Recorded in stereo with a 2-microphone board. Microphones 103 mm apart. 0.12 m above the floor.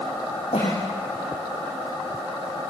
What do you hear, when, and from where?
0.5 s a cough: 70° left (ahead or behind), 7 m